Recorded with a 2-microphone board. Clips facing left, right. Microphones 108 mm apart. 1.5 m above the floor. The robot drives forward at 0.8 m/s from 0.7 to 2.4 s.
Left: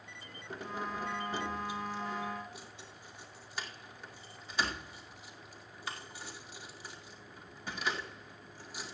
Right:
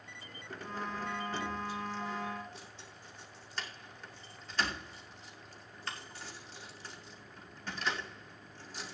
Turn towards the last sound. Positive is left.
turn(degrees=10)  # may be behind; listen again after turning